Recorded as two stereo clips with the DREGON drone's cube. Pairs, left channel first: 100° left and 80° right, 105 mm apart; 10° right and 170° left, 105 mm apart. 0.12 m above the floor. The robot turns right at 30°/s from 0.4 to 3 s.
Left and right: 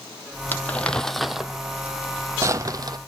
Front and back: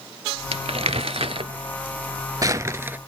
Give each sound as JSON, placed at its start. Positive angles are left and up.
{"t": 0.5, "sound": "crumpling", "azimuth_deg": 170, "distance_m": 0.5}